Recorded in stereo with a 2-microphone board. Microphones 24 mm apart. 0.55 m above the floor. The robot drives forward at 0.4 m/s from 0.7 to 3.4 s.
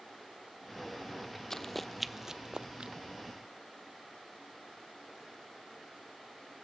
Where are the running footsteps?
15° left (ahead or behind), 0.7 m; by 2.9 s 45° right (ahead or behind), 0.8 m.